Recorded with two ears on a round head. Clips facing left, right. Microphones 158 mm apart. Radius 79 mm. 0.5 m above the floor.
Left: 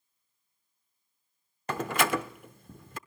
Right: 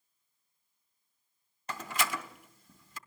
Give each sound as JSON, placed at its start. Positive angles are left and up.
{"t": 1.7, "sound": "a door slam", "side_deg": 45, "distance_m": 0.7}